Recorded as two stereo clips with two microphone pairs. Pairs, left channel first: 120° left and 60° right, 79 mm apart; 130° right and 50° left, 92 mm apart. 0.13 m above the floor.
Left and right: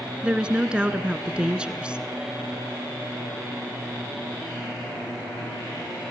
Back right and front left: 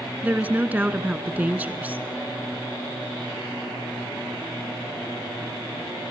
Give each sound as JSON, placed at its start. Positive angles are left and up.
{"t": 0.2, "sound": "a woman speaking", "azimuth_deg": 0, "distance_m": 1.2}